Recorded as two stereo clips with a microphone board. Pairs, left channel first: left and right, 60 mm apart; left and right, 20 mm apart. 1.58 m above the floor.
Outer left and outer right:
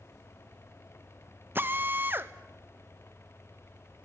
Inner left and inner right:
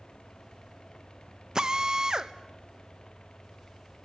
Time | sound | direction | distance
1.6 | a drill | 35° right (ahead or behind) | 0.9 m